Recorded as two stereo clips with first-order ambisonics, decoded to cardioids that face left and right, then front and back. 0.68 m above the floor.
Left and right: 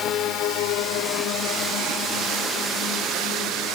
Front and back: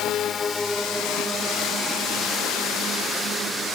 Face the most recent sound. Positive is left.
turn(degrees=130)